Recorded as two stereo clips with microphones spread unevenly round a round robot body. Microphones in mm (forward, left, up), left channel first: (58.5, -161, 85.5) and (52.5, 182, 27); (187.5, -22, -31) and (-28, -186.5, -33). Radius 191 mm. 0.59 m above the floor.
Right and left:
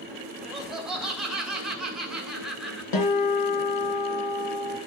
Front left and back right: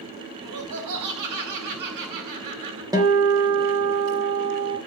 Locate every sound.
0.4 s laughter: 175° left, 2.5 m
2.9 s a guitar: 65° right, 3.5 m